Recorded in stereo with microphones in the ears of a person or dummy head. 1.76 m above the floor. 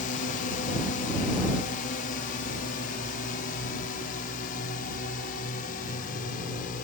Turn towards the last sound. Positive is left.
turn(degrees=50)  # may be behind; listen again after turning